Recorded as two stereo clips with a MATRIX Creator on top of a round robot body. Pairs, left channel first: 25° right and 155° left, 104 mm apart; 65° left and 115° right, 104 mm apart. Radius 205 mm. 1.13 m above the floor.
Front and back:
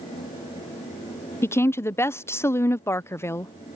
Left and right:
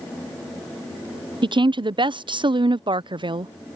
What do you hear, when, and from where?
1.4 s a woman speaking: 85° right